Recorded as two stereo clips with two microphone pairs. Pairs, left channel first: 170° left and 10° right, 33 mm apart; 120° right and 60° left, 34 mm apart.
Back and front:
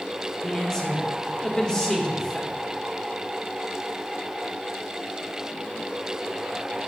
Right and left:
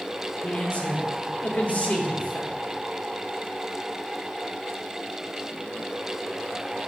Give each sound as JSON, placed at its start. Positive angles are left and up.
{"t": 0.4, "sound": "a man speaking", "azimuth_deg": -130, "distance_m": 1.3}